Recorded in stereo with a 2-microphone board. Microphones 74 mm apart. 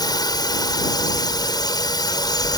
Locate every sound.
0.0 s a drone: 60° left (ahead or behind)